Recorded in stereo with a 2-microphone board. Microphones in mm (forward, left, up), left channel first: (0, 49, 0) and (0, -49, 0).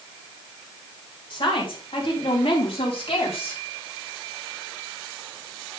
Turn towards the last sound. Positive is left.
turn(degrees=70)  # may be behind; listen again after turning